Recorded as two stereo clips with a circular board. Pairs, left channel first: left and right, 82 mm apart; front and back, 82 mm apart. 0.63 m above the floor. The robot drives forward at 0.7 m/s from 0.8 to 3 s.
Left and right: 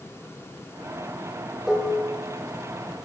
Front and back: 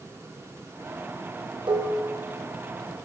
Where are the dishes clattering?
175° right, 1.0 m.